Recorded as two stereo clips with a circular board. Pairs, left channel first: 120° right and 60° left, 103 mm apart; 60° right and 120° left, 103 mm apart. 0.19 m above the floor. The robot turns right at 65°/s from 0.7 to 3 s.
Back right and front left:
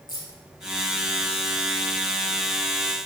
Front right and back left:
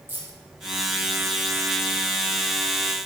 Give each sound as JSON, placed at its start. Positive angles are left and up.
{"t": 0.1, "sound": "keys jangling", "azimuth_deg": -165, "distance_m": 4.0}